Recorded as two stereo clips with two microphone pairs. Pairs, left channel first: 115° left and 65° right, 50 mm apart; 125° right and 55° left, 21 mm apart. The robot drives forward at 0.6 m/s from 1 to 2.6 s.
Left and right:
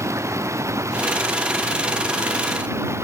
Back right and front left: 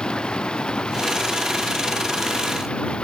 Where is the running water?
80° right; by 3.0 s 85° right.